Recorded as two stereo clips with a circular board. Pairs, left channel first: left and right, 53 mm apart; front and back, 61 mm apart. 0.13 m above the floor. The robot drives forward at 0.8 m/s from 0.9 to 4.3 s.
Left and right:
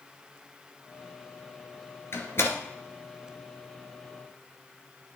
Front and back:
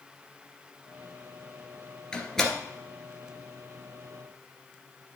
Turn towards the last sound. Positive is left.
turn(degrees=135)